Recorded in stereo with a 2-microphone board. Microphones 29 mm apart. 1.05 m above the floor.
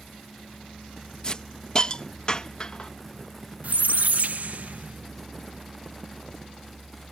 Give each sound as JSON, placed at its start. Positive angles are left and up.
{"t": 1.2, "sound": "a hiss", "side_deg": 30}
{"t": 3.6, "sound": "a squeak", "side_deg": -65}